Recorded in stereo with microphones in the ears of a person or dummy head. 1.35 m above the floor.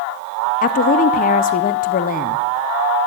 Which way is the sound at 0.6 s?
35° left (ahead or behind).